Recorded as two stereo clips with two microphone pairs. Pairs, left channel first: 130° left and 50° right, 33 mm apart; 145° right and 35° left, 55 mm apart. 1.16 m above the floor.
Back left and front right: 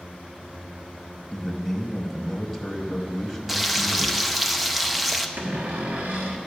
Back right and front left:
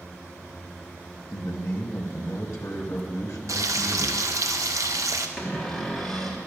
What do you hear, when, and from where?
1.3 s a man speaking: 140° right, 1.0 m
3.5 s frying: 35° left, 0.6 m
5.4 s a cupboard door: 65° right, 1.3 m